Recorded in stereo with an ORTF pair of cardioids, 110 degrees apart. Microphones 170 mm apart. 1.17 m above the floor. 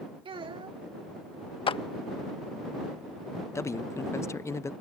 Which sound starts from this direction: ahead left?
A clap, at 1.7 s.